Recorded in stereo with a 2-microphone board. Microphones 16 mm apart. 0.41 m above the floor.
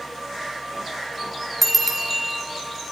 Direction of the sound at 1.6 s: 20° right (ahead or behind).